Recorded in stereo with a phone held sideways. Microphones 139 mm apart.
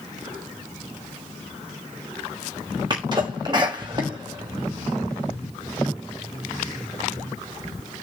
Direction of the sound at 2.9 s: 30° right (ahead or behind).